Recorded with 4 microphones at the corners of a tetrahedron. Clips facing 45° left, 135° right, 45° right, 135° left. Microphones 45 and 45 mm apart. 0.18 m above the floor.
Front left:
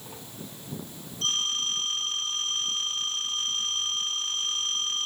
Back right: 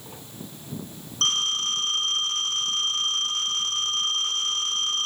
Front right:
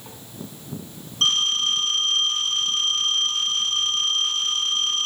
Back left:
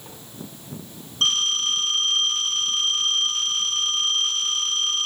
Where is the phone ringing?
135° right, 8.5 m.